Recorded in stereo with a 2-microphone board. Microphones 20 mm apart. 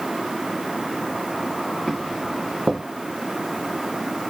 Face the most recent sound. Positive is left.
turn(degrees=5)  # may be behind; listen again after turning